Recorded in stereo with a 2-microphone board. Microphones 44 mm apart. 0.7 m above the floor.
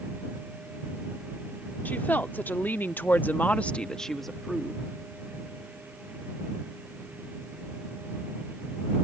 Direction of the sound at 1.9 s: 45° left (ahead or behind).